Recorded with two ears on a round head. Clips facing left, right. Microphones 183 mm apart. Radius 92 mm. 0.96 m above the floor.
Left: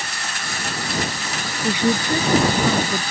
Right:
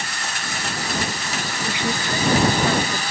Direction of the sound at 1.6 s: 85° left.